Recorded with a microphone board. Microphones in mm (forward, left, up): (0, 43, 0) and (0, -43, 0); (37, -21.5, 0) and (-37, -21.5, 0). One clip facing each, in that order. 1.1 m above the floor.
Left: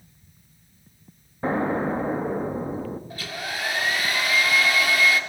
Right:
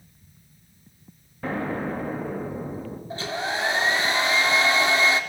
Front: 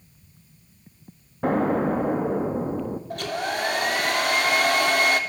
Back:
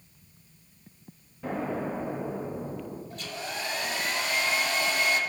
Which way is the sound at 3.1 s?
25° right.